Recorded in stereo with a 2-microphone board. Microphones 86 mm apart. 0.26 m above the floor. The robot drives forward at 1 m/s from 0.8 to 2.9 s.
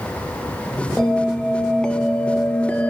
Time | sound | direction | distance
1.0 | a bell | 5° left (ahead or behind) | 3 m